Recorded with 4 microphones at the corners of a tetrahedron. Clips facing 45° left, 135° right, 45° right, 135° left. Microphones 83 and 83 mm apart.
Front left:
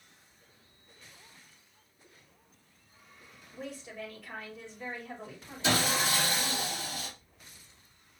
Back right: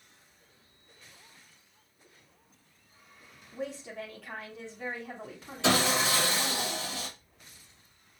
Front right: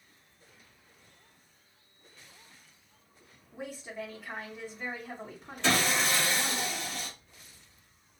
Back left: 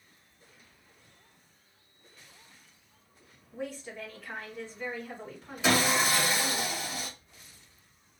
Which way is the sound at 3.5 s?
120° right.